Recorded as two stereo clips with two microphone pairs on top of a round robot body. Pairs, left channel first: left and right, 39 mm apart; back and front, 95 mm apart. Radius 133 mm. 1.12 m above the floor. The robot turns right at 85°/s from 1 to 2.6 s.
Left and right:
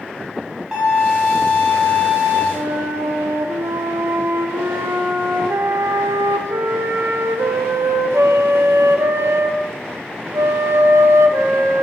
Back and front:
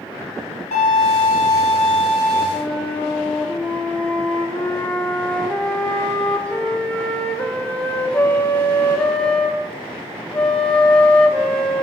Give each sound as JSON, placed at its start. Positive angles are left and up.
{"t": 0.7, "sound": "a violin", "azimuth_deg": -170, "distance_m": 2.5}
{"t": 2.5, "sound": "a flute", "azimuth_deg": -100, "distance_m": 0.7}